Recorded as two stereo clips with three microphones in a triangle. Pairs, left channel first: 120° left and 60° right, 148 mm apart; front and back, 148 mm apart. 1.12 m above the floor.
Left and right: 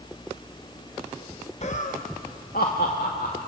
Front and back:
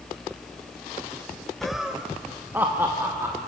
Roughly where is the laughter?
Left.